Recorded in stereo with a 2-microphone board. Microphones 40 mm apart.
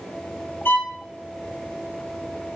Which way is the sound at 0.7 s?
70° left (ahead or behind).